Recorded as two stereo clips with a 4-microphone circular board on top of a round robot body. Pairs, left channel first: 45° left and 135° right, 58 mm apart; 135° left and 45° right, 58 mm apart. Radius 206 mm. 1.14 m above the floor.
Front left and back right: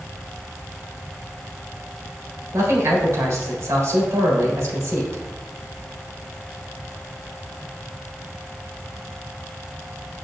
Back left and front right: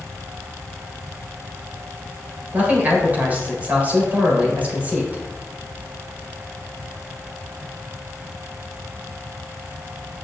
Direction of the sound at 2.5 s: 105° right.